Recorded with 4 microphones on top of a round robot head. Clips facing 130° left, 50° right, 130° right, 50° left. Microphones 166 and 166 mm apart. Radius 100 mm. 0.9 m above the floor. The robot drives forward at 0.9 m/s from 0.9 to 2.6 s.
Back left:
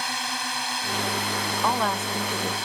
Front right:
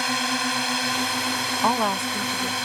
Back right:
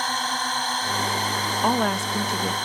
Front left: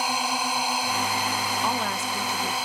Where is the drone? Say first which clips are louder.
Front right 6 dB, front left 1 dB; 30° right.